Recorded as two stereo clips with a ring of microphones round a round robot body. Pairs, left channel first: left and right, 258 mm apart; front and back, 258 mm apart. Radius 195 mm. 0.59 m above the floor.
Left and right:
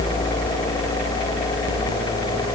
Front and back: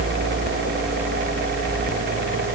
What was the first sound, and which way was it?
Only background noise.